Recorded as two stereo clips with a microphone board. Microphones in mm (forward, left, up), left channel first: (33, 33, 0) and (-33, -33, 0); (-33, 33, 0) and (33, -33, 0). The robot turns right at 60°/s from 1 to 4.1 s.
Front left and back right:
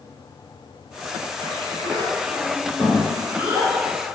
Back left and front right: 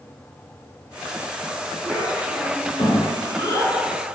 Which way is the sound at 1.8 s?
70° left.